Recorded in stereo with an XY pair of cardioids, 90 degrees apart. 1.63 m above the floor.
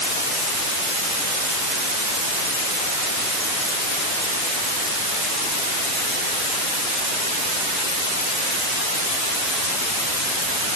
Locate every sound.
Only background noise.